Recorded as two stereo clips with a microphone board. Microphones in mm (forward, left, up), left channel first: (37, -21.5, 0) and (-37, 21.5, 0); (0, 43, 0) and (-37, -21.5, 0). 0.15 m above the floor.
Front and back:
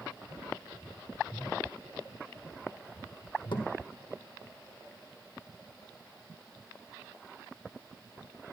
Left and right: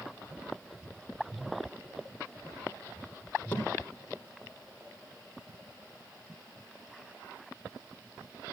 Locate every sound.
3.5 s a thud: 10° right, 2 m